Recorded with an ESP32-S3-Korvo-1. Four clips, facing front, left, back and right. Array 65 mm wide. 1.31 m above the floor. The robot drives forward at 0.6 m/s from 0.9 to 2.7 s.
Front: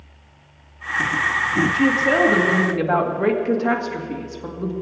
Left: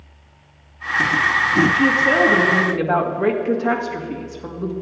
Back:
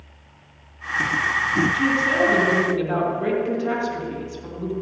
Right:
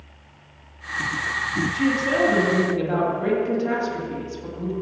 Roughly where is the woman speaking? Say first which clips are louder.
Left 5 dB, front 3 dB; ahead left.